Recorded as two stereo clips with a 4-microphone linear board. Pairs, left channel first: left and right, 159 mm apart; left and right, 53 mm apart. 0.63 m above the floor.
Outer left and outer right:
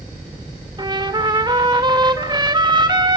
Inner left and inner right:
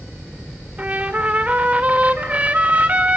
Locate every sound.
0.8 s a trumpet: 30° right (ahead or behind), 2 m